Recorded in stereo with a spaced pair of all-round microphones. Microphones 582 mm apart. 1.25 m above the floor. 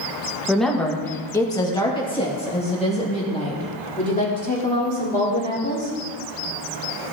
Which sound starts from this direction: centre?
A woman speaking, at 0.5 s.